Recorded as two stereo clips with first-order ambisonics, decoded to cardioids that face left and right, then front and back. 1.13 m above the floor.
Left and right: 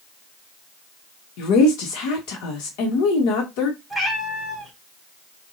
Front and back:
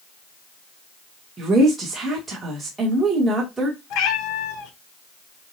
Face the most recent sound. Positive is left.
turn(degrees=5)